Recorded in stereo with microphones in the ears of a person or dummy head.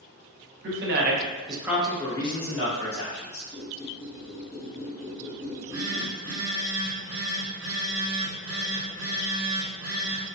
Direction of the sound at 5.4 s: 45° right (ahead or behind).